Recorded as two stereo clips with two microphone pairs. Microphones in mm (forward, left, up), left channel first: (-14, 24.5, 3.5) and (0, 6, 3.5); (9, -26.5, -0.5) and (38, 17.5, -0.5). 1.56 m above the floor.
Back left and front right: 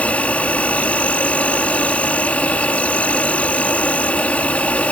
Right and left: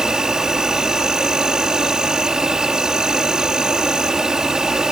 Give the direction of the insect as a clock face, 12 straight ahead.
8 o'clock.